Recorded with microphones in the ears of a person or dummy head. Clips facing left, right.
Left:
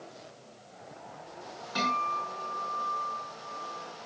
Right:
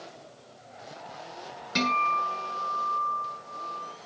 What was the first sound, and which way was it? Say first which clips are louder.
A guitar: right 5 dB; 30° right (ahead or behind).